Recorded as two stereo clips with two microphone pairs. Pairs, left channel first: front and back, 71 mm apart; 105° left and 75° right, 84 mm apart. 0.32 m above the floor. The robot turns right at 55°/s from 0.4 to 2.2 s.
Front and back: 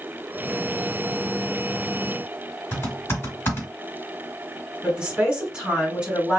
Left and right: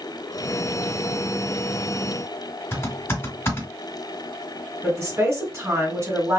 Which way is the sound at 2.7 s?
50° left.